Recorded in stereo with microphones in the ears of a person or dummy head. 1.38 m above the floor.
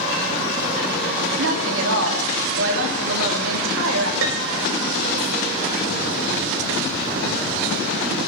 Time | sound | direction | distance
1.4 | a woman speaking | 75° right (ahead or behind) | 2.5 m
4.2 | a piano | 65° right (ahead or behind) | 1.3 m